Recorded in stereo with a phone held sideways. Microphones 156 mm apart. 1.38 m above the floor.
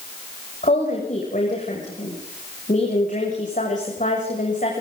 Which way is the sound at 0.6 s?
55° left (ahead or behind).